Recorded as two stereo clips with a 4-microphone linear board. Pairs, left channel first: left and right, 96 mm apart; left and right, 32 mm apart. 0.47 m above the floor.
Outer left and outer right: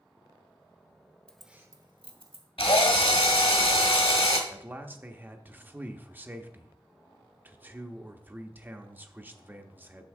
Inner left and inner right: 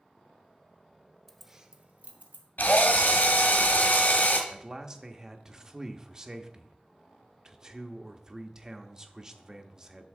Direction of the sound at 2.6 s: 80° left.